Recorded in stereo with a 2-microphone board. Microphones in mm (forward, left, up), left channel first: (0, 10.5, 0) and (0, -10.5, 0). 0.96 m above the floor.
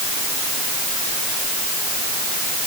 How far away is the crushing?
I don't hear crushing.